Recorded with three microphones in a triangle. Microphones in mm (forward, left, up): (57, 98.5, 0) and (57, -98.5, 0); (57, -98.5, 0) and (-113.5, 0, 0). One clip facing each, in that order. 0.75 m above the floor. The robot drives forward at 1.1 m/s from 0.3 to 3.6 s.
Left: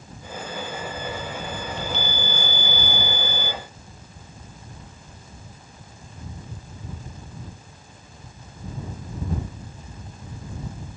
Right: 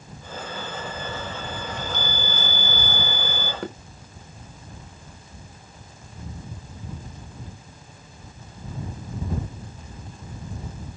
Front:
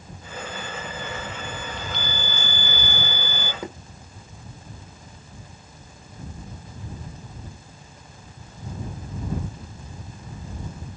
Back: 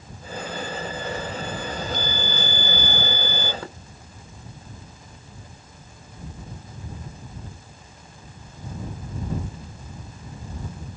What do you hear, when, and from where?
1.7 s a chime: 165° right; by 3.5 s 170° right
3.6 s knocking: 105° right